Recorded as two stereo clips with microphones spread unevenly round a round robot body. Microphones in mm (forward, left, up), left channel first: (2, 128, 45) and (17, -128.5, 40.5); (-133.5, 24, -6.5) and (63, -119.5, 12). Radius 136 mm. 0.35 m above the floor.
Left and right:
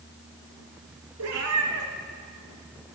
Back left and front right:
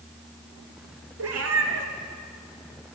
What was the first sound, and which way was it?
A cat meowing, 60° right.